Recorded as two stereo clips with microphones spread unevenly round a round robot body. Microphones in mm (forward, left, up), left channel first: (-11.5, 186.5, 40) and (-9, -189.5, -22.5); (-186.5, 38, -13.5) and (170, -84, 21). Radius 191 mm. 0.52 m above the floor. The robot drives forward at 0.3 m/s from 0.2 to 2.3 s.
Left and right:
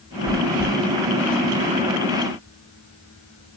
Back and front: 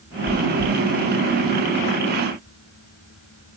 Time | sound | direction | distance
0.3 | chewing | 70° right | 4 m